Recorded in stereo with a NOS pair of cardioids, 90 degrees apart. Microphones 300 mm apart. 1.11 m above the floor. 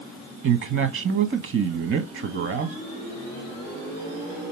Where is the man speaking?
45° right, 1.0 m.